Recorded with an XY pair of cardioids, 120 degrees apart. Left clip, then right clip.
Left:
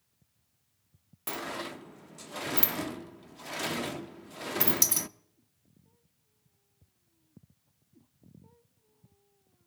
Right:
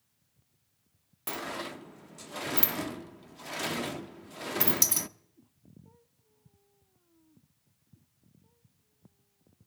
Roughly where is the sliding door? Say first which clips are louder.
Even; ahead.